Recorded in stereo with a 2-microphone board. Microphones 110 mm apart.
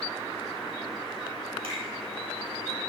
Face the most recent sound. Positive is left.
turn(degrees=-70)  # may be behind; listen again after turning